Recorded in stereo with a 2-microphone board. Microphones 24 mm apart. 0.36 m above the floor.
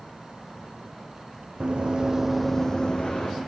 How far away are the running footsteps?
About 1.5 m.